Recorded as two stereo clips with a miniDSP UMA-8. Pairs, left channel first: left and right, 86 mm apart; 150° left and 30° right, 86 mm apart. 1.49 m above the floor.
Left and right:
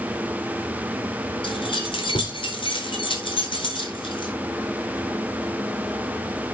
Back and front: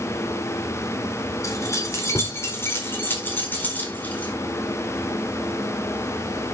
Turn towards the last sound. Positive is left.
turn(degrees=75)